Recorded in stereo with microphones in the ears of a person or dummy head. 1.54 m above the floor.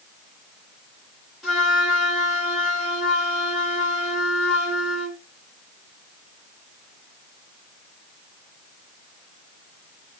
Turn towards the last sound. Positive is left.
turn(degrees=0)  # may be behind; listen again after turning